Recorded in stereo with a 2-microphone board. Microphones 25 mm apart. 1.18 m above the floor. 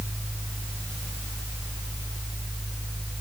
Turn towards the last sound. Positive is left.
No sound to turn to.